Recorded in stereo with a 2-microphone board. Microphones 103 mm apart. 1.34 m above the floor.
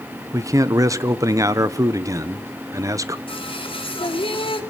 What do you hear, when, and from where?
0.3 s a man speaking: 30° right (ahead or behind), 0.8 m
3.3 s singing: 55° left (ahead or behind), 2 m